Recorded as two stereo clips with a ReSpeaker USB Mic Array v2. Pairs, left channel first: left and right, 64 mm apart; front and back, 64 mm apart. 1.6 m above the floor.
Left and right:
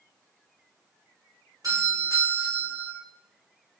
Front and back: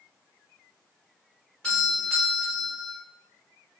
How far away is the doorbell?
About 1.3 m.